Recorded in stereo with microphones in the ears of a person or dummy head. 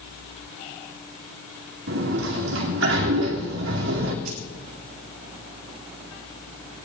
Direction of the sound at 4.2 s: 45° right (ahead or behind).